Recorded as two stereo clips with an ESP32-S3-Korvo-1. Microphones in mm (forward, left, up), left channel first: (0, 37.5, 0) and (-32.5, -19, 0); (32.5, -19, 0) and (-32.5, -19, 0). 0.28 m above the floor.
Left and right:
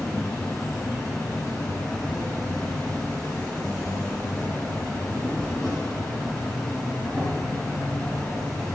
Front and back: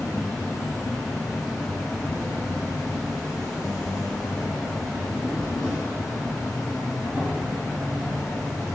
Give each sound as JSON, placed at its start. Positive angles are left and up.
{"t": 0.0, "sound": "an insect", "azimuth_deg": -15, "distance_m": 4.0}